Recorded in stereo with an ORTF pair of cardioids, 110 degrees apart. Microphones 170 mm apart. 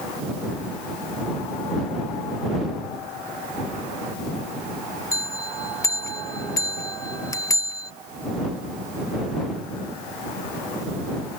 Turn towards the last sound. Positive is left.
turn(degrees=15)